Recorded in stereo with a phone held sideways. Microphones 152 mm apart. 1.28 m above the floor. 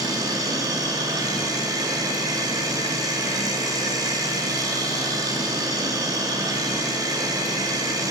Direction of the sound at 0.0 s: 25° right (ahead or behind).